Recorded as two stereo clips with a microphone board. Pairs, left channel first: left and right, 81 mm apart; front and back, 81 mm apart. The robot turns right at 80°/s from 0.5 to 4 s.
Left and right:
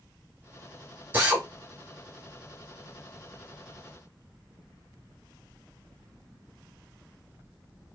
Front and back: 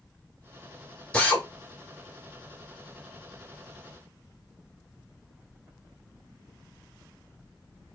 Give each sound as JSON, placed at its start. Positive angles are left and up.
{"t": 1.1, "sound": "a drill", "azimuth_deg": -65, "distance_m": 1.4}